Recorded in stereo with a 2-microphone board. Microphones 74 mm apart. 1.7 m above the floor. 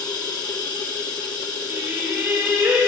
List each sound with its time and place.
0.0 s running water: 65° left (ahead or behind), 1.6 m
1.7 s singing: 30° right (ahead or behind), 6.5 m